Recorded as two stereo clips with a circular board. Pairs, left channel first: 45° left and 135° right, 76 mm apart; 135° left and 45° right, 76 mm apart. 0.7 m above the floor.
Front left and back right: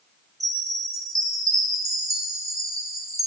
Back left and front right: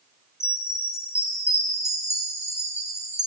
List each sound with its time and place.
0.4 s a chime: 170° right, 4 m